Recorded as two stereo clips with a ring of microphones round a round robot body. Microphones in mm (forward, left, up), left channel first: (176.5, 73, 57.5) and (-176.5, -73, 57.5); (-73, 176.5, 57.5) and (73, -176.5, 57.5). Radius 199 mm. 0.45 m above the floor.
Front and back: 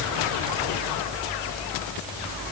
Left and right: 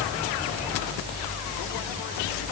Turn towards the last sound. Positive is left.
No sound to turn to.